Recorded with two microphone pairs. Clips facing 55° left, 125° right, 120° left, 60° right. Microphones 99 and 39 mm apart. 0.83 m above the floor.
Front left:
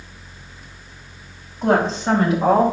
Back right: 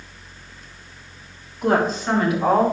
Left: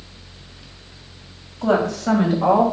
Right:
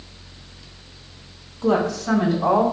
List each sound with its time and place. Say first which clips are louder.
1.6 s a woman speaking: front left 2 dB, left 1 dB; 115° left, 4.5 m